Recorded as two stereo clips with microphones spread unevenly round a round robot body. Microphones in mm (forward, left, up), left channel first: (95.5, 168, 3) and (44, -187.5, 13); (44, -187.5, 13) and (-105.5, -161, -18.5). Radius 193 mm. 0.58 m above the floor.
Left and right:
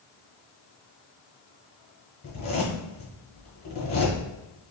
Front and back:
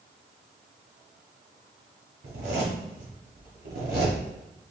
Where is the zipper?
150° left, 1.0 m.